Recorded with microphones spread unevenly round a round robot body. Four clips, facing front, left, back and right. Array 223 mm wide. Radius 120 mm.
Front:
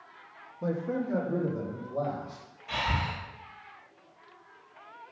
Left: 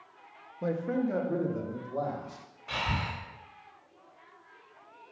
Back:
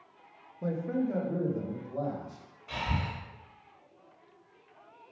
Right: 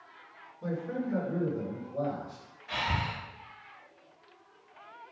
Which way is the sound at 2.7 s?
80° left.